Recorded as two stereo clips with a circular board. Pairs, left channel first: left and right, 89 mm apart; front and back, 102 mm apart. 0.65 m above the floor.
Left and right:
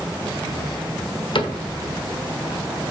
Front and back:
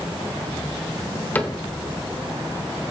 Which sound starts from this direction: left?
A cupboard door, at 1.4 s.